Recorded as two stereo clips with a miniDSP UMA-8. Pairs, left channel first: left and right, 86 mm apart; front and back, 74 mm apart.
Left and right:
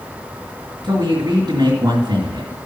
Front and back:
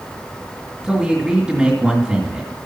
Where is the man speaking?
105° right, 2 m.